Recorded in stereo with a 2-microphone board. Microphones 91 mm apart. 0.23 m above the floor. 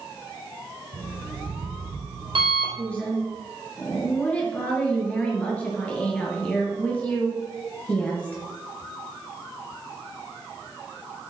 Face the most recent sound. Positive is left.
turn(degrees=15)  # may be behind; listen again after turning